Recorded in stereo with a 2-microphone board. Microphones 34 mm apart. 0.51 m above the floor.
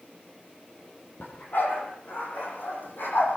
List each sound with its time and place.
1.2 s a dog barking: 65° left (ahead or behind), 8 m; by 3.4 s 75° left (ahead or behind), 10.5 m